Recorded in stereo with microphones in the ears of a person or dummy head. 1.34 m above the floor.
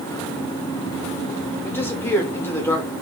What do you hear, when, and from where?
1.6 s a man speaking: 10° left (ahead or behind), 0.8 m